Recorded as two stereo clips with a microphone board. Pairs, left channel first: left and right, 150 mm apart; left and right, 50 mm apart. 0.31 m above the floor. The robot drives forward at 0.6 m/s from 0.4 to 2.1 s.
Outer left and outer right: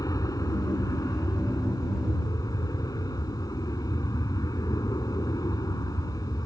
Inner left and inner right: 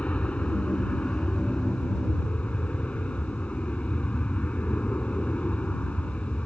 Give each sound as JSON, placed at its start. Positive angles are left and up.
{"t": 0.0, "sound": "an aircraft", "side_deg": 25}